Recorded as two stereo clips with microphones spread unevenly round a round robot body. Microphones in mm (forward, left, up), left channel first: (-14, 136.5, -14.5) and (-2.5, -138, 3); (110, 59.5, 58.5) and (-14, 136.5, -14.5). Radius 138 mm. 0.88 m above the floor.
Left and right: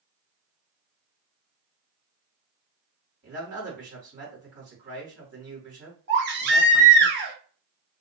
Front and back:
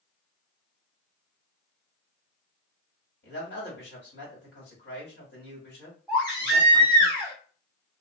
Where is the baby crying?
140° right, 0.8 m.